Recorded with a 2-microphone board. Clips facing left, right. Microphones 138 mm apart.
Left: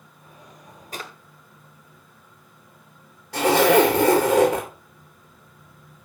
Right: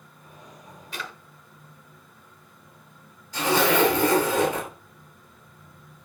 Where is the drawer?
40° left (ahead or behind), 1.2 m.